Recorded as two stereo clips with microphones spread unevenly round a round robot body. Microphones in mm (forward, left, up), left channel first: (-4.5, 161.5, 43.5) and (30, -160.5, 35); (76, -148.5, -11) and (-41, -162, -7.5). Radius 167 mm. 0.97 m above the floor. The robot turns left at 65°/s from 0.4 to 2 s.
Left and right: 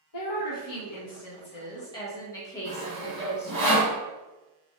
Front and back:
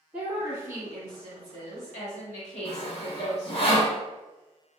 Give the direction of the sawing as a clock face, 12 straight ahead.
1 o'clock.